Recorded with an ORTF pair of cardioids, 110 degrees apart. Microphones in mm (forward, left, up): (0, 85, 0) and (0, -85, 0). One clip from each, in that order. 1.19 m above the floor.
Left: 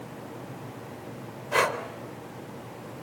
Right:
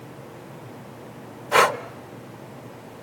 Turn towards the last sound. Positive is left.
turn(degrees=-40)